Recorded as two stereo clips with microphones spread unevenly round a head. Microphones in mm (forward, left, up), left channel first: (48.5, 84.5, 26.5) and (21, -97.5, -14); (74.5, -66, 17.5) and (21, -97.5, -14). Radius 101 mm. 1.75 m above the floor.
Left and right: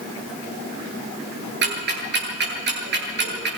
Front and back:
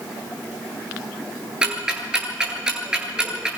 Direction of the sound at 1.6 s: 70° right.